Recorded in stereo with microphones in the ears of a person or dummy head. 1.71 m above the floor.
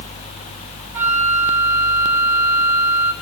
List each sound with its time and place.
0.9 s a flute: 10° right (ahead or behind), 4.5 m